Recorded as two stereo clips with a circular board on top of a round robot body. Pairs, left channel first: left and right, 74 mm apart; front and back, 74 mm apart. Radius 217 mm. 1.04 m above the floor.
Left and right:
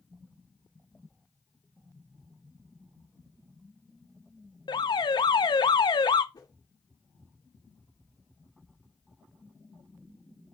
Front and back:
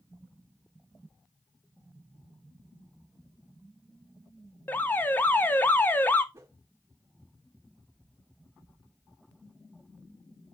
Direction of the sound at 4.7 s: 70° left.